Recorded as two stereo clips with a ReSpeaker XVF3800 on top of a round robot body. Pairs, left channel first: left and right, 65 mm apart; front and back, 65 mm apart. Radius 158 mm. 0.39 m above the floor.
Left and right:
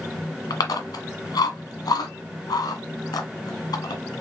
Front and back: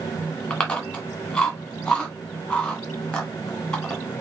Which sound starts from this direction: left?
Chewing, at 0.5 s.